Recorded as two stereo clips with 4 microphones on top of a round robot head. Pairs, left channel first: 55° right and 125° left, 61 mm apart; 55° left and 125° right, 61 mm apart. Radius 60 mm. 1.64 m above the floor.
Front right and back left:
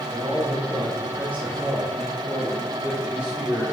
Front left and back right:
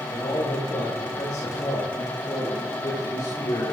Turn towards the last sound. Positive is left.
turn(degrees=45)